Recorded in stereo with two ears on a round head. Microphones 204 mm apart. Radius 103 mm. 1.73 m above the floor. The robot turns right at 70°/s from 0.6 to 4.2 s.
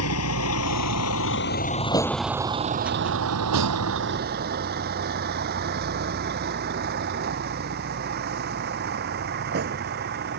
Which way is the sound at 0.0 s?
70° left (ahead or behind).